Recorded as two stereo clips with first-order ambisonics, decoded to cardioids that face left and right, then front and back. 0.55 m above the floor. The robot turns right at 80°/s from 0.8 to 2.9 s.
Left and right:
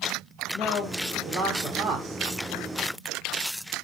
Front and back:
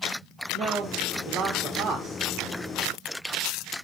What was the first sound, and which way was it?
A man speaking, 160° left.